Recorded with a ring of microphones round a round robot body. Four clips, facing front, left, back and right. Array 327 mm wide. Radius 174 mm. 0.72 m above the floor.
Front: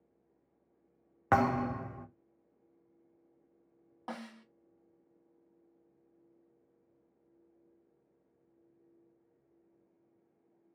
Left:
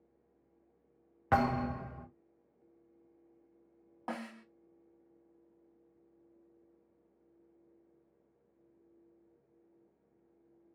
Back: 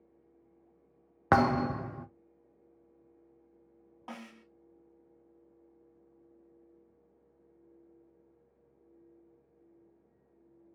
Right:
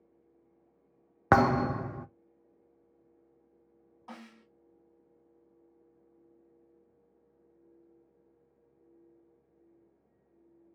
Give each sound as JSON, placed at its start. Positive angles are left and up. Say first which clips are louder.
{"t": 1.3, "sound": "a thud", "louder": "right 6 dB, back 3 dB", "azimuth_deg": -110, "distance_m": 0.6}
{"t": 4.1, "sound": "a snare drum", "louder": "left 7 dB, front 2 dB", "azimuth_deg": 75, "distance_m": 0.8}